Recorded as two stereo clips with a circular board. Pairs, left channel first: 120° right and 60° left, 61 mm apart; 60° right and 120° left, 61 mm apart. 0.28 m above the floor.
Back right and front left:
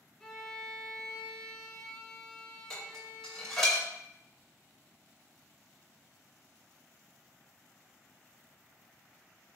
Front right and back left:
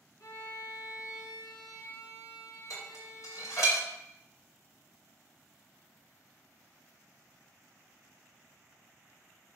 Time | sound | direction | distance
0.2 | a violin | 40° right | 1.0 m
2.7 | dishes clattering | 35° right | 2 m